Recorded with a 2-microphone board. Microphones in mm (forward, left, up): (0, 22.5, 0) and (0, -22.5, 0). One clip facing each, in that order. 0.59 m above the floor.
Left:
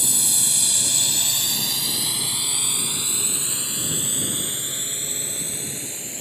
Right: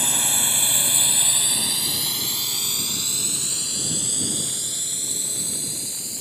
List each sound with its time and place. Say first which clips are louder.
0.0 s a drone: right 3 dB; 45° right (ahead or behind); by 6.2 s 40° left (ahead or behind)